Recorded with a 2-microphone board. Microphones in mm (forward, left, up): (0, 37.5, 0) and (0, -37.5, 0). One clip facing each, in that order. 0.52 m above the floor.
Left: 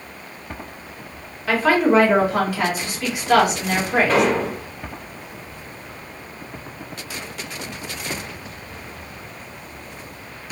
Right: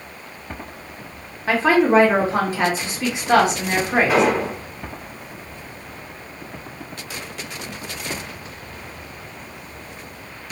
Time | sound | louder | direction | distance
1.5 | a woman speaking | right 1 dB | 30° right (ahead or behind) | 1.4 m
4.1 | an explosion | even | 10° right (ahead or behind) | 1.2 m